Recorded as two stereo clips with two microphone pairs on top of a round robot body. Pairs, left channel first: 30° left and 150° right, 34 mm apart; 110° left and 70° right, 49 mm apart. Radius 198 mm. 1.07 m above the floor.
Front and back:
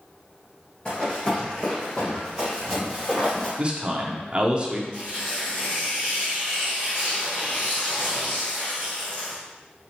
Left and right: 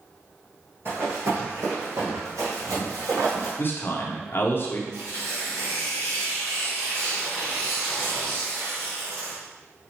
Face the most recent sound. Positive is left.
turn(degrees=-30)